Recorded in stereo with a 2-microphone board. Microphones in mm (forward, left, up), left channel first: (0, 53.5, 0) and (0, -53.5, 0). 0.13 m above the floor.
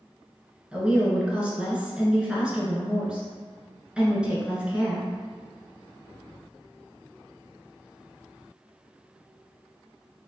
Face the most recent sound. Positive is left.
turn(degrees=-10)  # may be behind; listen again after turning